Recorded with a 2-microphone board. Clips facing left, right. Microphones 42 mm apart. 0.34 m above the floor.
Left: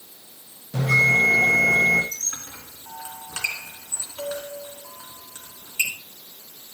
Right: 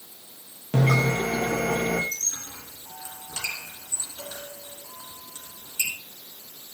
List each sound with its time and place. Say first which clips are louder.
0.7 s a bell: left 5 dB; 75° right (ahead or behind), 3.5 m
2.1 s a squeak: even; 45° left (ahead or behind), 2.5 m